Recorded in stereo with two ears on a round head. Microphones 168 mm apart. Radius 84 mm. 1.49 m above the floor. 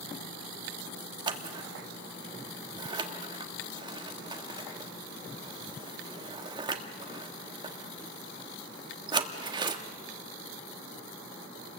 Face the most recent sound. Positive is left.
turn(degrees=-25)  # may be behind; listen again after turning